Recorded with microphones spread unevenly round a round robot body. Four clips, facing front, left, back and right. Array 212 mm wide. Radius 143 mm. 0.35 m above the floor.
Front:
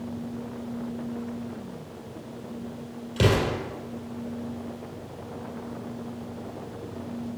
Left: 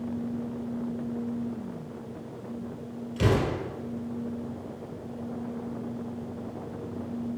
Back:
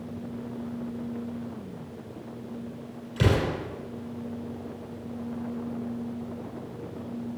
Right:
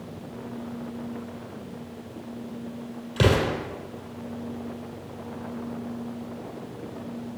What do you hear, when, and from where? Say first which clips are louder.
3.2 s an explosion: right 3 dB, front 2 dB; 55° right, 4 m